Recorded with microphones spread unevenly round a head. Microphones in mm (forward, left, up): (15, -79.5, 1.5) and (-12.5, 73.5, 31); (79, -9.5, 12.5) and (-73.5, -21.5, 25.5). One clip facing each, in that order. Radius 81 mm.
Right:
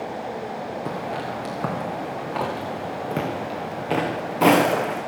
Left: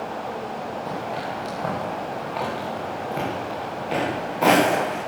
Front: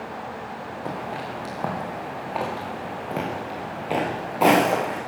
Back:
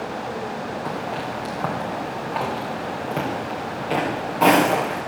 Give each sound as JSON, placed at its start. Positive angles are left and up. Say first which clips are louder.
{"t": 0.8, "sound": "footsteps", "louder": "even, back 3 dB", "azimuth_deg": -80, "distance_m": 7.5}